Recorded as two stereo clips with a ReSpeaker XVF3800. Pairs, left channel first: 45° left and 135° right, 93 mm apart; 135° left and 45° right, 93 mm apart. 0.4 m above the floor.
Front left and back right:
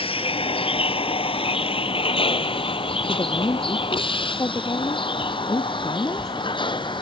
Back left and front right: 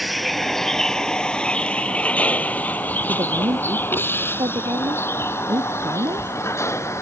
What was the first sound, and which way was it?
A vehicle, 45° left.